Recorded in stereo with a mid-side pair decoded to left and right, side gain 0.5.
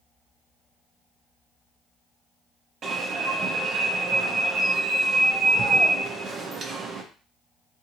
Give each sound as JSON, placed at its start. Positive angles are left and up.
{"t": 2.8, "sound": "an alarm", "azimuth_deg": -50, "distance_m": 0.8}